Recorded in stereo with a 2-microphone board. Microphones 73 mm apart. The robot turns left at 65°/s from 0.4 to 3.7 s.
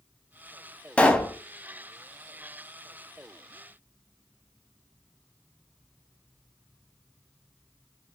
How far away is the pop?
About 0.6 m.